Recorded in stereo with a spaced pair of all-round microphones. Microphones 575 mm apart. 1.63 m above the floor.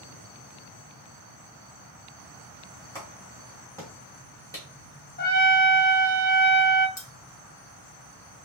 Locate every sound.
3.0 s a clap: 5° left (ahead or behind), 2 m
5.2 s a trumpet: 20° left (ahead or behind), 1.0 m
7.0 s cutlery clinking: 30° left (ahead or behind), 0.8 m